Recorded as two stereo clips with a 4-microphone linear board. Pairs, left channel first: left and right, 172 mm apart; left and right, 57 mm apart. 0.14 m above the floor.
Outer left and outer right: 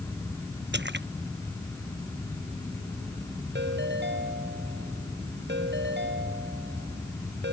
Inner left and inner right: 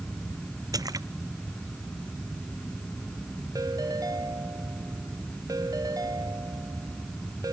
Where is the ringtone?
80° right.